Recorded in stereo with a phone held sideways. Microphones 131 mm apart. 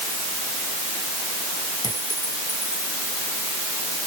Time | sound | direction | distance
1.8 | a clink | 30° left (ahead or behind) | ?